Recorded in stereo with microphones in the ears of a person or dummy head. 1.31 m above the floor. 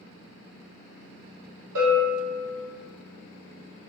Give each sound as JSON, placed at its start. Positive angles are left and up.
{"t": 1.8, "sound": "a bell", "side_deg": -70, "distance_m": 1.8}